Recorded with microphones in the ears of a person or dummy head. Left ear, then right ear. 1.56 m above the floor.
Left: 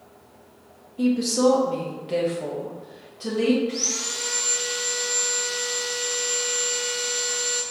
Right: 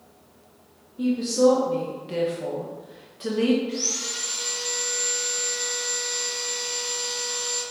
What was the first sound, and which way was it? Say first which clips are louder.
A woman speaking: even; 40° left (ahead or behind).